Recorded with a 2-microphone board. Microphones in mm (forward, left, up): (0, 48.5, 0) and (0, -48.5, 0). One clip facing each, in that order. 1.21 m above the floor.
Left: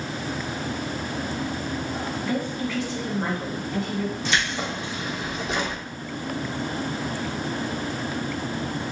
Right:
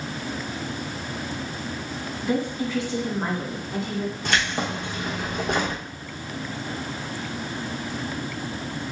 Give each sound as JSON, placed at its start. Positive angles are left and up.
{"t": 2.2, "sound": "a woman speaking", "side_deg": -25, "distance_m": 1.5}
{"t": 4.2, "sound": "keys jangling", "side_deg": -55, "distance_m": 0.8}